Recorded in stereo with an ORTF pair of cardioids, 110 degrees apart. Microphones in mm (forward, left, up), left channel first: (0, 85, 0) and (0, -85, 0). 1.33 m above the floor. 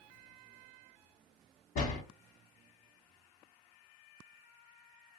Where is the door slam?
60° left, 1.1 m.